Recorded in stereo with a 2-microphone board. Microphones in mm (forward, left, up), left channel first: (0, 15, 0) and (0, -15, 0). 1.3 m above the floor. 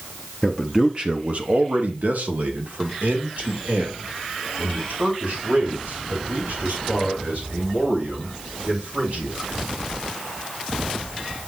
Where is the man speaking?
Centre (ahead or behind), 0.8 m; by 9.5 s 70° right (ahead or behind), 7 m.